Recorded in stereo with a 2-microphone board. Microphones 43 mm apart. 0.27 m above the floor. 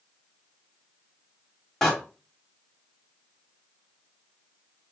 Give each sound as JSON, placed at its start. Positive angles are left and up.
{"t": 1.8, "sound": "a door slam", "side_deg": 5, "distance_m": 1.3}